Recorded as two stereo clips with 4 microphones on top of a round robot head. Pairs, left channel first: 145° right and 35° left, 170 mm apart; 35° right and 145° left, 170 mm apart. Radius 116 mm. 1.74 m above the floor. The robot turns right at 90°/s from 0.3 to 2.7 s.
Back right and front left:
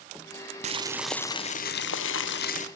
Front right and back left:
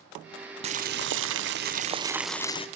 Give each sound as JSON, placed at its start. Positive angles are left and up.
{"t": 0.6, "sound": "boiling", "azimuth_deg": 85, "distance_m": 1.2}